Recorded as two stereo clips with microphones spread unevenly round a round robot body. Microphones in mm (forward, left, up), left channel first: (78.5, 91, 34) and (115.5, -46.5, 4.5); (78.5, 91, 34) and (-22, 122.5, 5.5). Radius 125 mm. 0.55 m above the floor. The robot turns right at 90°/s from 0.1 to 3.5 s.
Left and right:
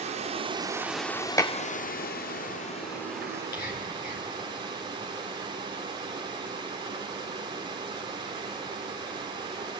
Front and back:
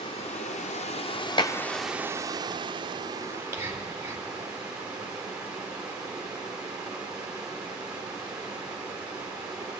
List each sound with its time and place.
0.0 s running water: 75° right, 1.0 m; by 9.8 s 125° right, 1.0 m
1.4 s dishes clattering: 30° left, 0.9 m; by 1.6 s 45° left, 0.9 m
3.3 s whispering: 90° left, 2.5 m; by 4.3 s 105° left, 2.5 m